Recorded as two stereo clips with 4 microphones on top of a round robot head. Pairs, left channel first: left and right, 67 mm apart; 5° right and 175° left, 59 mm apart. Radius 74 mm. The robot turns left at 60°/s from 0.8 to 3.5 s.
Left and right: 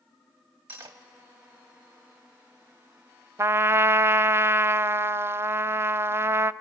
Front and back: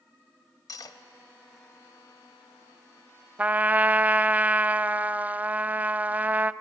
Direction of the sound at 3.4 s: 125° right.